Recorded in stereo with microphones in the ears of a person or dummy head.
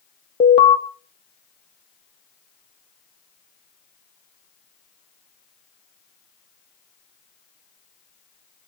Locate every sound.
0.4 s an alarm: 30° left (ahead or behind), 1.2 m